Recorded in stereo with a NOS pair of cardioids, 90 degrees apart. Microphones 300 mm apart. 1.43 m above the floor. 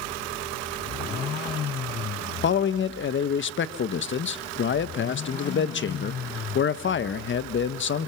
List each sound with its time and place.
2.4 s a man speaking: 40° left, 1.3 m